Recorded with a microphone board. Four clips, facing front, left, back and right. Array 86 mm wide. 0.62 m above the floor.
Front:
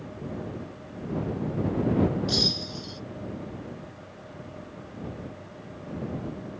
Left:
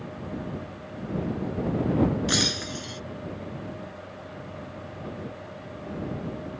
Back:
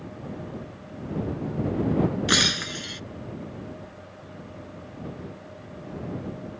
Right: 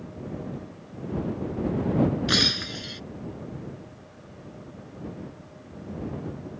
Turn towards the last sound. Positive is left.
turn(degrees=-170)